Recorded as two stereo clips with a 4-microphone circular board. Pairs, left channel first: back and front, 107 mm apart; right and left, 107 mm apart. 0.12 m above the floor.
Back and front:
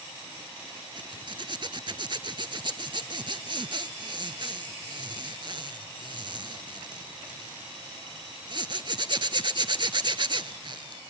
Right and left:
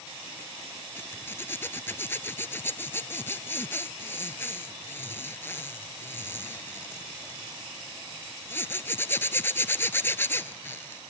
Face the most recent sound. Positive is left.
turn(degrees=-25)